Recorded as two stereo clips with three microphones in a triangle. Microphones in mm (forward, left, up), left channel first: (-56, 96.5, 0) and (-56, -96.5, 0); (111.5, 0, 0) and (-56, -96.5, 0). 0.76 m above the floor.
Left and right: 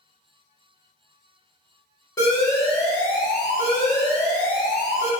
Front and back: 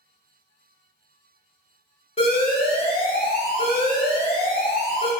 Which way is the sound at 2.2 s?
40° left.